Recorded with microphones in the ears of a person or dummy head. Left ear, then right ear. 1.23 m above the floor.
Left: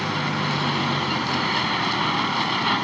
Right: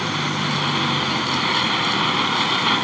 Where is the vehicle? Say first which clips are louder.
Right 2 dB; 15° right (ahead or behind).